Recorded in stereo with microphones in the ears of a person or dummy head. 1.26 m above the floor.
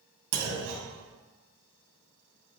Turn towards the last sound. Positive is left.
turn(degrees=-85)